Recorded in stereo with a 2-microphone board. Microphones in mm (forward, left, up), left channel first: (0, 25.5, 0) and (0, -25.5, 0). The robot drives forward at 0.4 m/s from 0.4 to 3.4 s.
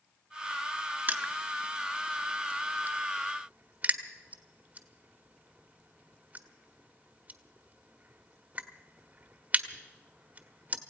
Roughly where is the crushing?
Right.